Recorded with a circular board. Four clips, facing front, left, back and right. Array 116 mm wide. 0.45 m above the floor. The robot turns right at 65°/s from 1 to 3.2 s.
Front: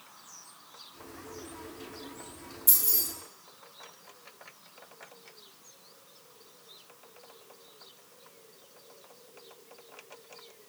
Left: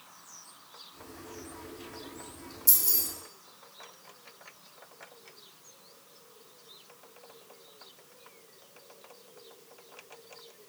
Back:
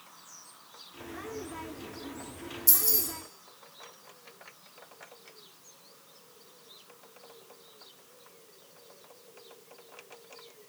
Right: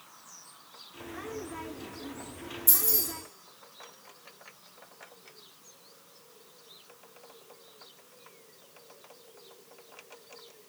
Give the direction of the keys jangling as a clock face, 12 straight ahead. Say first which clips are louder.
Right 8 dB, back 5 dB; 1 o'clock.